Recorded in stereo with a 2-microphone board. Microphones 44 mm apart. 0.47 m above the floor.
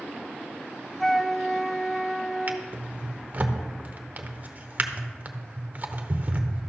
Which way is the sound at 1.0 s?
Centre (ahead or behind).